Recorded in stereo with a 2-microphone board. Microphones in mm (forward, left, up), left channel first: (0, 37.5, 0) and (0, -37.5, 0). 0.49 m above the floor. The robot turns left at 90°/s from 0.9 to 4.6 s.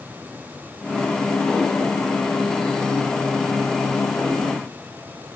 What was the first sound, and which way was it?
Only background noise.